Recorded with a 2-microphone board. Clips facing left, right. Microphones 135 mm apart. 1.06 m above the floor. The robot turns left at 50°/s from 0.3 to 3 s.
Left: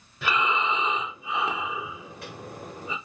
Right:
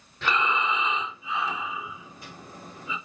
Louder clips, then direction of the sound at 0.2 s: Even; 175° left.